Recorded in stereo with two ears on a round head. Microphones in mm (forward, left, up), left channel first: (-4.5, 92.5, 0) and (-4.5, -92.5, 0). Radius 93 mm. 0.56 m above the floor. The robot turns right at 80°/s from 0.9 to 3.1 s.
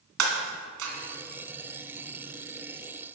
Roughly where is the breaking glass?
Right.